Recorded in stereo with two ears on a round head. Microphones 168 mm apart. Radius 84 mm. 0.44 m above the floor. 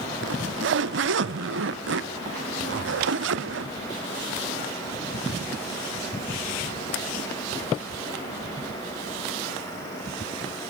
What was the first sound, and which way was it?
A zipper, 65° right (ahead or behind).